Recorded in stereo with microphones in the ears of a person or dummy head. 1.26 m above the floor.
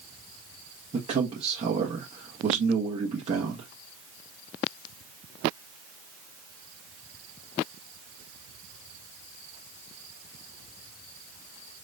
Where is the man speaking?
30° right (ahead or behind), 1.3 m.